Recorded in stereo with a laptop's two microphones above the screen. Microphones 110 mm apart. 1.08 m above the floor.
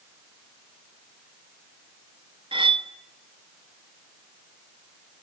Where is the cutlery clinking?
50° right (ahead or behind), 0.6 m.